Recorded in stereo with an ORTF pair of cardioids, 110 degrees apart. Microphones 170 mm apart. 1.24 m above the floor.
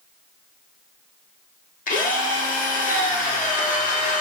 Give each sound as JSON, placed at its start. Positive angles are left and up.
{"t": 1.9, "sound": "a drill", "azimuth_deg": 55, "distance_m": 1.6}